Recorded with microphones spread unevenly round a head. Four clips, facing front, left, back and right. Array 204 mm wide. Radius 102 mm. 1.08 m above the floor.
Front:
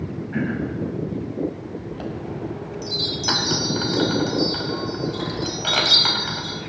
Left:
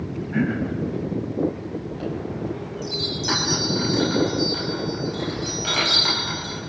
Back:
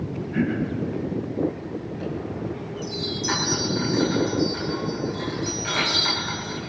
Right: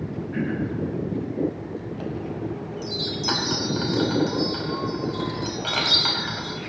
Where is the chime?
Straight ahead, 4.5 m.